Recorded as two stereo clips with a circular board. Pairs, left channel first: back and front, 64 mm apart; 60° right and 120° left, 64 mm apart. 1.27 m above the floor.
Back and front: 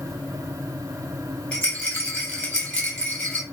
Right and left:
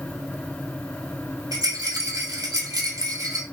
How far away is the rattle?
About 1.8 m.